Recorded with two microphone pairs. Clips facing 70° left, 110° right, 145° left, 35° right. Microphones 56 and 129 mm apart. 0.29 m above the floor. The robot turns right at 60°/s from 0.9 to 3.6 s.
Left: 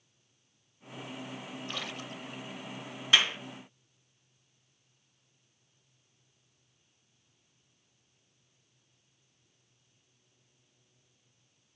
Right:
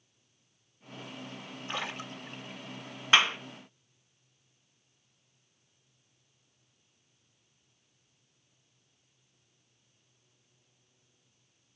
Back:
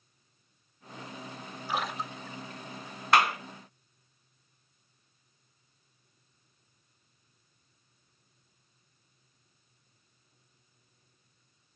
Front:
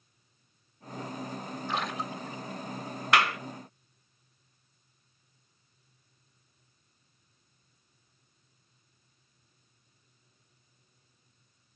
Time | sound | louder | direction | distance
1.7 | a splash | right 5 dB, back 1 dB | 140° right | 0.8 m
3.1 | a clap | right 3 dB, back 2 dB | 165° right | 1.7 m